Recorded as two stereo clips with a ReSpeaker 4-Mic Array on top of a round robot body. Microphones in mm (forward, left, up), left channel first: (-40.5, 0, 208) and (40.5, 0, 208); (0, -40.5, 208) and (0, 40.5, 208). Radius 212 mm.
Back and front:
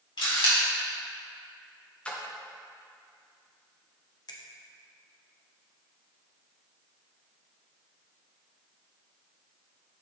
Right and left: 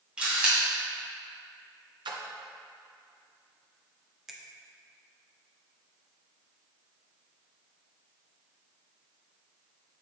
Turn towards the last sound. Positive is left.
turn(degrees=175)